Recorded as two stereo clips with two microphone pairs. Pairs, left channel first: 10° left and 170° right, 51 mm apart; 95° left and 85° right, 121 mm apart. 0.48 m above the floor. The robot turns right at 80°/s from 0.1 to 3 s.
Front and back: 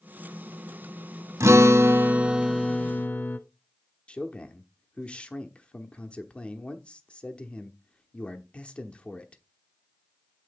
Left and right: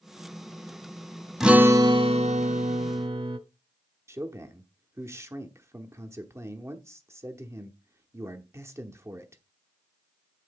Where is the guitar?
175° right, 0.6 m; by 3.4 s 45° right, 0.6 m.